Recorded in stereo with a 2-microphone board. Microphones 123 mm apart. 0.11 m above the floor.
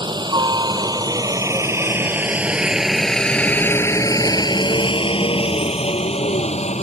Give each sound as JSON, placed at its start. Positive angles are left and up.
{"t": 0.0, "sound": "a helicopter", "side_deg": -40}